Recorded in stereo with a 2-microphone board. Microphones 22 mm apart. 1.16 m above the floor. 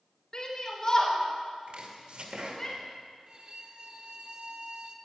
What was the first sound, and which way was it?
A shout, 40° left (ahead or behind).